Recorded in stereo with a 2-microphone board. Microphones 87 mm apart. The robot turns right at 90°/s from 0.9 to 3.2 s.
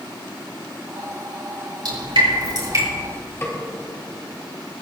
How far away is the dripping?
About 3.5 m.